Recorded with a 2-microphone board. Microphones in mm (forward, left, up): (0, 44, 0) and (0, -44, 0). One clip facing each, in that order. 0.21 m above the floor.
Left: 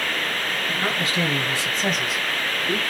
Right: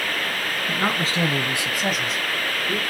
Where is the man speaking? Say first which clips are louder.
Right 3 dB; 40° right (ahead or behind), 2 m; by 2.8 s 30° left (ahead or behind), 1.8 m.